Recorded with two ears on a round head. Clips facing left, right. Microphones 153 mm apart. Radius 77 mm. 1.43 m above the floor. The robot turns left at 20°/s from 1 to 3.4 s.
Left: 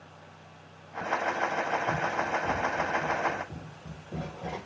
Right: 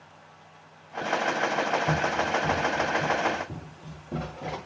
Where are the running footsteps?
60° right (ahead or behind), 9.5 m; by 4.6 s 80° right, 10 m.